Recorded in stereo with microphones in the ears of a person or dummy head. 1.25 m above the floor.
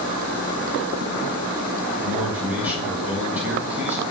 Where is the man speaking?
5° right (ahead or behind), 4 m.